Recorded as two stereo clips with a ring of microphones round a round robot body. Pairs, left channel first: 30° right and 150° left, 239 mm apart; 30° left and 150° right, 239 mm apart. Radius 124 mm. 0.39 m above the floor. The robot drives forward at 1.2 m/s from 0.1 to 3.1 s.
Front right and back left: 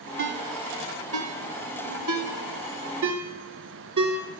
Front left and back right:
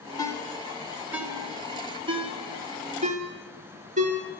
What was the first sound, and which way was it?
A ringtone, 105° left.